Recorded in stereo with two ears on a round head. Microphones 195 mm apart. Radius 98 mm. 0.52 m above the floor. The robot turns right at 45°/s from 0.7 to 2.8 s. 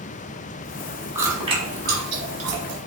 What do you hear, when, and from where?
1.1 s chewing: 10° right (ahead or behind), 1.6 m; by 2.8 s 80° right, 1.6 m